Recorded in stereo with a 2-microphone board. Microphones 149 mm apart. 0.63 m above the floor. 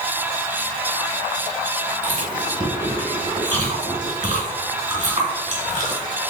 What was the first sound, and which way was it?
Chewing, 55° right (ahead or behind).